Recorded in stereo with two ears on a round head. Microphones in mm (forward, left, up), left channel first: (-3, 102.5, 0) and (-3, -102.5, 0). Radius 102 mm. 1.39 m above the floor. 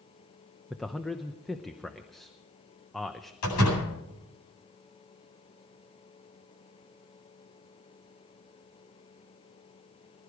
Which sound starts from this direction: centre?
A man speaking, at 0.7 s.